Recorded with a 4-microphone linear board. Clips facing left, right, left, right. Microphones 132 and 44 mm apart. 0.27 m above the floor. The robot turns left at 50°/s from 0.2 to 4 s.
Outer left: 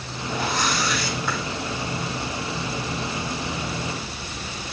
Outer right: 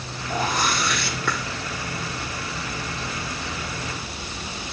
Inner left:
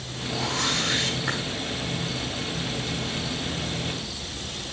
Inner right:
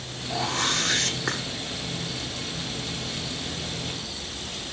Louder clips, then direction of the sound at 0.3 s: Outer right 1 dB, inner right 1 dB; 40° right.